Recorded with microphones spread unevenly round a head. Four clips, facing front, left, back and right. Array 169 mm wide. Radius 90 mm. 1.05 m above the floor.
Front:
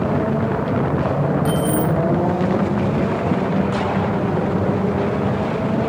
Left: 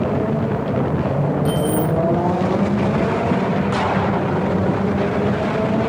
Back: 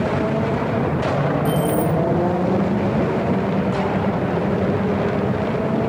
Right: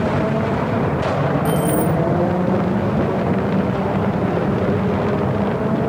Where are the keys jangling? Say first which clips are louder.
Right 1 dB, even; 30° right, 3 m.